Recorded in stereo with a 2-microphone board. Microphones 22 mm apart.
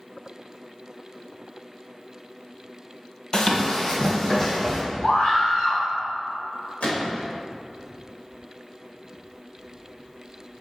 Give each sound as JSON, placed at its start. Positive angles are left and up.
{"t": 3.3, "sound": "running footsteps", "side_deg": 35, "distance_m": 0.7}
{"t": 5.0, "sound": "a scream", "side_deg": 55, "distance_m": 1.6}
{"t": 6.8, "sound": "a gunshot", "side_deg": 80, "distance_m": 1.2}